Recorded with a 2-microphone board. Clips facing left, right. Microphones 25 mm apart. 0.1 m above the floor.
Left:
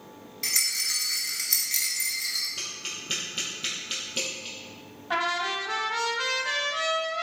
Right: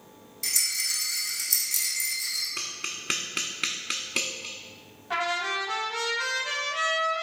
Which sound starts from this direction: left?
A rattle, at 0.4 s.